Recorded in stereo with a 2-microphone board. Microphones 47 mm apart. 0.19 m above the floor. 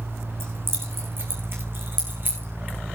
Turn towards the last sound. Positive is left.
turn(degrees=-40)  # may be behind; listen again after turning